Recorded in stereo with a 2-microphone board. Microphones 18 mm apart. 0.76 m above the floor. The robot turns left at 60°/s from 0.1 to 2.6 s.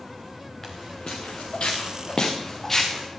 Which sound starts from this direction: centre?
Footsteps, at 0.6 s.